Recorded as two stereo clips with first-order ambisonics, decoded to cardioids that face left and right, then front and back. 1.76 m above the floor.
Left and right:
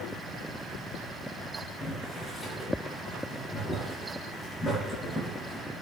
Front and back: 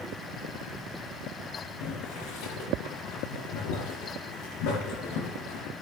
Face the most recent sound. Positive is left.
turn(degrees=5)